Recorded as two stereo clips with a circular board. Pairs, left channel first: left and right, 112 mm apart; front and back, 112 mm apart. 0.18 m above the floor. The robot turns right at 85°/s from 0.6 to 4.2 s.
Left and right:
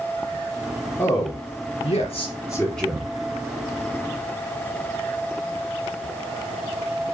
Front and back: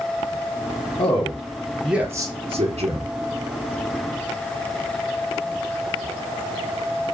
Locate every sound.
1.0 s a man speaking: 20° left, 3.5 m; by 3.1 s 165° right, 3.5 m